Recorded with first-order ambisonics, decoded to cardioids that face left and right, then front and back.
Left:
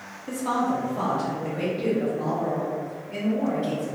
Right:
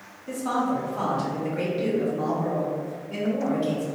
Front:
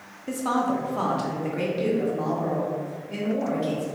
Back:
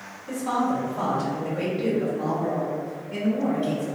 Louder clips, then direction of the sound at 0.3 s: Left 1 dB, even; 10° left.